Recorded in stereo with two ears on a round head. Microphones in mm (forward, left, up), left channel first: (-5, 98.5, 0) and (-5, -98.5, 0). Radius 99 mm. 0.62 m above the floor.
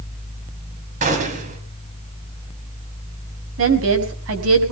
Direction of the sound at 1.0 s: 35° right (ahead or behind).